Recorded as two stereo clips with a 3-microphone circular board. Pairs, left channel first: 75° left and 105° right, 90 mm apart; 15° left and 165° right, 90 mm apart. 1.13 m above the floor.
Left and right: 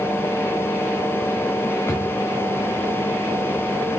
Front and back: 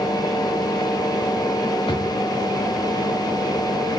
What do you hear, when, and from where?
1.9 s a drawer: 15° left, 3.5 m